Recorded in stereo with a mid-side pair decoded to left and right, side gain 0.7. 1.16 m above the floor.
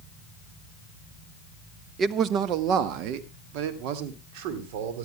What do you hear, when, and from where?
2.0 s a man speaking: 40° right, 1.1 m; by 5.0 s 75° right, 4 m